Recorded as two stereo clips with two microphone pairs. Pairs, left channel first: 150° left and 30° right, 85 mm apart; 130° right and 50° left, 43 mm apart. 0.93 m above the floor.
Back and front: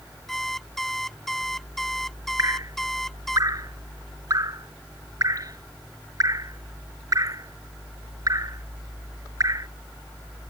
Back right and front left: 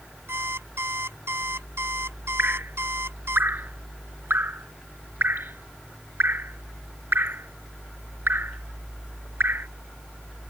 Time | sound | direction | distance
0.3 | an alarm clock | 65° left | ?
2.4 | dripping | 15° left | ?